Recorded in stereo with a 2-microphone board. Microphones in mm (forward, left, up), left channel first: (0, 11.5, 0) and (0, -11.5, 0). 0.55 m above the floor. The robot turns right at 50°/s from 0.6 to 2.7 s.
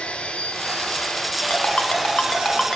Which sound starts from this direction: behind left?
An engine running, at 0.0 s.